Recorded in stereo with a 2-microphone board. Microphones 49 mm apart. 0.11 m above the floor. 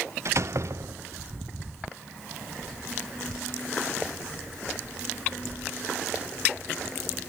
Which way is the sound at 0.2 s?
60° right (ahead or behind).